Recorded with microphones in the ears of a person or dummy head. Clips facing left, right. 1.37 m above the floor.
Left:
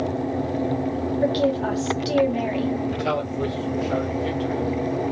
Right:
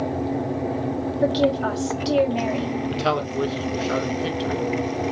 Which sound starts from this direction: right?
A man speaking, at 2.9 s.